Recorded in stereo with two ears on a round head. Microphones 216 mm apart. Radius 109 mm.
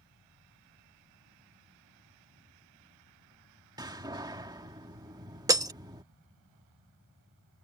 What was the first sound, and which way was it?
A door slam, 15° right (ahead or behind).